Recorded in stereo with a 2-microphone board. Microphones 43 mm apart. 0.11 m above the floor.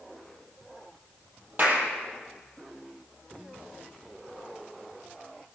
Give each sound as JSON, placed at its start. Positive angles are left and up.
{"t": 1.6, "sound": "a clap", "side_deg": -40, "distance_m": 3.5}